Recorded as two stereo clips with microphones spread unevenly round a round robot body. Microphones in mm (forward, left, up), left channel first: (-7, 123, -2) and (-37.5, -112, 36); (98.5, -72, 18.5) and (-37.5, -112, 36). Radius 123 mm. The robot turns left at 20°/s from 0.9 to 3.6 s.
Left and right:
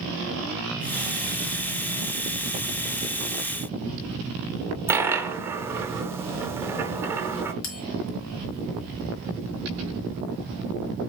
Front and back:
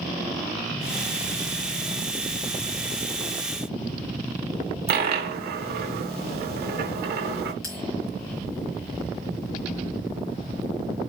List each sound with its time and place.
4.9 s a dropped coin: straight behind, 0.6 m
7.6 s a bell: 60° left, 1.3 m